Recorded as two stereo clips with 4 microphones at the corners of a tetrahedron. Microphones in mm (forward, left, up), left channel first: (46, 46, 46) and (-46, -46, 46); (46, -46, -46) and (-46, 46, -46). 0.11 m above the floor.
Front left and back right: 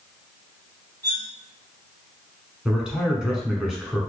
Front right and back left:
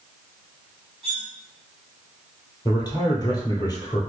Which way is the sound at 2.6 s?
55° right.